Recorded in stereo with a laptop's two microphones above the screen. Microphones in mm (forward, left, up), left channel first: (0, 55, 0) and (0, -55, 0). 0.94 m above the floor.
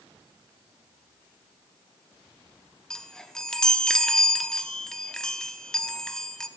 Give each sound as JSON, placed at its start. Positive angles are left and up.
{"t": 2.9, "sound": "a chime", "side_deg": 5, "distance_m": 0.9}